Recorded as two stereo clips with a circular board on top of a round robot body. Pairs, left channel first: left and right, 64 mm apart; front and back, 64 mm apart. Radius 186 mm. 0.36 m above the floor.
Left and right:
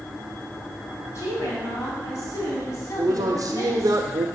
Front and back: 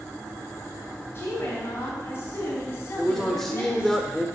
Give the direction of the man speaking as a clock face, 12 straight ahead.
3 o'clock.